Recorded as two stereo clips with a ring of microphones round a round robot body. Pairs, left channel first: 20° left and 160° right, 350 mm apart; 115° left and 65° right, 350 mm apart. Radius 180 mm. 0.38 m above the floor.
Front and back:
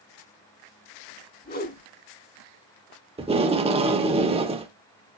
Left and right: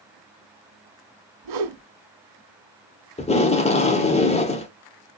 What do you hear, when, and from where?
1.4 s a whoosh: 45° right, 1.6 m
3.2 s tape being pulled: 155° left, 1.2 m